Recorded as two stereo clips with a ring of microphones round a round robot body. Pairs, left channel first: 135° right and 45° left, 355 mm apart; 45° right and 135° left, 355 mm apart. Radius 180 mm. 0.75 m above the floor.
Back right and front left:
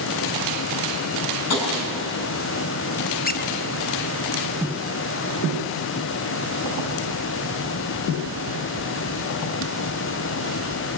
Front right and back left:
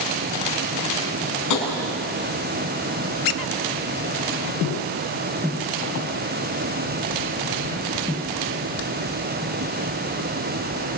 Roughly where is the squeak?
Right.